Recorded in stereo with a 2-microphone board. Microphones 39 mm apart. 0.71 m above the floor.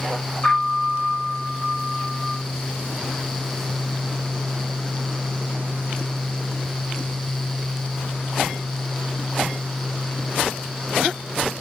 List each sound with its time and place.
0.4 s a piano: 30° left (ahead or behind), 3 m